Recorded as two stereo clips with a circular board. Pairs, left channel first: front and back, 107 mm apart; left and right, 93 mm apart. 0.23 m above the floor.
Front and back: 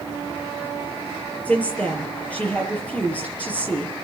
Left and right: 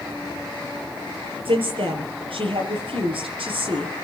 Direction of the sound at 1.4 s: 75° right.